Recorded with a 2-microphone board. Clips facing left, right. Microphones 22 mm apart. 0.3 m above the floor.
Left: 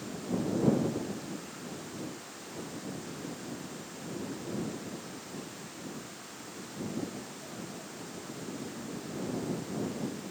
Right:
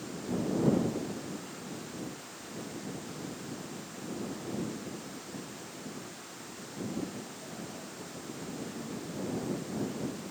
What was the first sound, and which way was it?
Only background noise.